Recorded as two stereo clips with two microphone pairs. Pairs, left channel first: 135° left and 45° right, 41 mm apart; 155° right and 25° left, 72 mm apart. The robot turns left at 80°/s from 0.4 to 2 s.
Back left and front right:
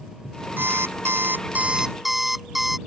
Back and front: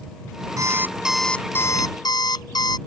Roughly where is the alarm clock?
Ahead.